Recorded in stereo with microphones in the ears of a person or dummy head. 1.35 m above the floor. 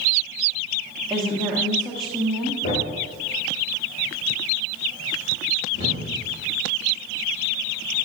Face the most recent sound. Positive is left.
turn(degrees=45)  # may be behind; listen again after turning